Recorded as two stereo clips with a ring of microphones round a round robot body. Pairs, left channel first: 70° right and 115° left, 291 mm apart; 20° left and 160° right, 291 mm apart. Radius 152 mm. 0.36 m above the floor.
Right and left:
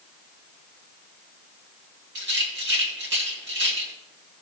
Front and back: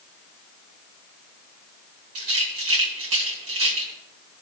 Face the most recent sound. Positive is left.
turn(degrees=165)